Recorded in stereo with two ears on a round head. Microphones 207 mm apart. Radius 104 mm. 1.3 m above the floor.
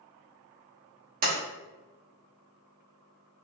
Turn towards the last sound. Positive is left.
turn(degrees=-40)  # may be behind; listen again after turning